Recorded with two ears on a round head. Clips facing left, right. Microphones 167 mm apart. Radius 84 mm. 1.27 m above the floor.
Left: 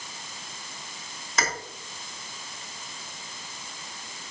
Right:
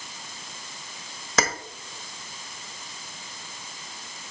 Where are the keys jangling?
65° right (ahead or behind), 1.3 m.